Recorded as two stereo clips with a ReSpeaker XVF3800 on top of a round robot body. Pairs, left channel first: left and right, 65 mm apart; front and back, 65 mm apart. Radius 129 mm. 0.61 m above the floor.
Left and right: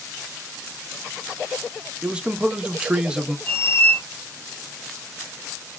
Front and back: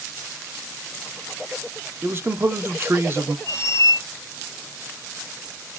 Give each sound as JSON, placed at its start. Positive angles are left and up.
{"t": 2.0, "sound": "a man speaking", "azimuth_deg": -155, "distance_m": 0.6}
{"t": 3.5, "sound": "a squeak", "azimuth_deg": 35, "distance_m": 0.7}